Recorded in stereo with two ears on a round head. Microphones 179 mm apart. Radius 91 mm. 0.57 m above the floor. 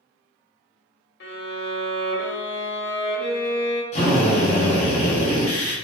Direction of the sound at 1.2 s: 55° left (ahead or behind).